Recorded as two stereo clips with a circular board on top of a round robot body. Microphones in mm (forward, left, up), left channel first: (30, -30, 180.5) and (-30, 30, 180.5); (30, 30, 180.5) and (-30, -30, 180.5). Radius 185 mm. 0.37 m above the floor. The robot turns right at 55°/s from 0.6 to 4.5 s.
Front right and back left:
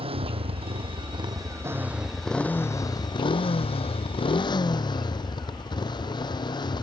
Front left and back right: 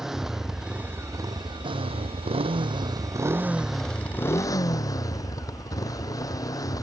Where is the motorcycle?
140° left; by 6.8 s 5° right.